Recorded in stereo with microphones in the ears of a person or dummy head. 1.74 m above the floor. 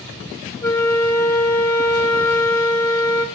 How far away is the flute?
About 1.3 m.